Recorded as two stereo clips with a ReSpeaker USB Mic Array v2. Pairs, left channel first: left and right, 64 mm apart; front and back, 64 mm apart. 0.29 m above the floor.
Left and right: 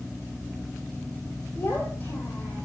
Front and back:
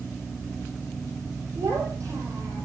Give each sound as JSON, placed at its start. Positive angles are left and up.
{"t": 1.6, "sound": "a child speaking", "azimuth_deg": 140, "distance_m": 8.0}